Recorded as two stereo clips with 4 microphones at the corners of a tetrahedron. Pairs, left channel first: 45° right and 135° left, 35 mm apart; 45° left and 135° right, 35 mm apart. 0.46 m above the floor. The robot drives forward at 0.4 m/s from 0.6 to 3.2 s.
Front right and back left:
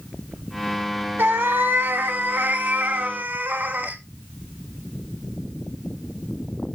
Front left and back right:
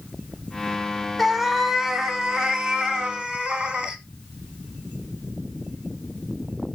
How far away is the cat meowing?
About 0.7 m.